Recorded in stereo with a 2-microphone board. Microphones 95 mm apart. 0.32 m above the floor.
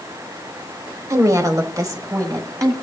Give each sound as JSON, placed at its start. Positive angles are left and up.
{"t": 1.1, "sound": "a woman speaking", "side_deg": -35, "distance_m": 1.1}